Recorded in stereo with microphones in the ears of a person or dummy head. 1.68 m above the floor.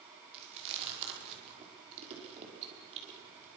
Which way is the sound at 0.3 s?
35° right (ahead or behind).